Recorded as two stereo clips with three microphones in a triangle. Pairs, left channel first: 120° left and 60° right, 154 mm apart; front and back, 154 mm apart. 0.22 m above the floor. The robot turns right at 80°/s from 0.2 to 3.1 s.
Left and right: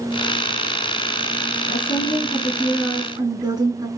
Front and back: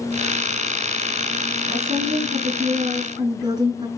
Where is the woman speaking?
130° left, 2.5 m; by 3.9 s 120° right, 2.5 m.